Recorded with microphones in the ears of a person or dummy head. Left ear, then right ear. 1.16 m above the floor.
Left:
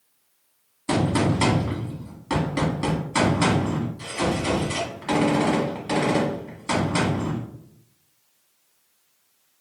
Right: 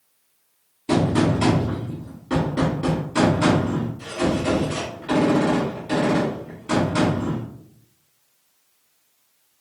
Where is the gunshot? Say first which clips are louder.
Right 2 dB; 50° left (ahead or behind), 1.5 m.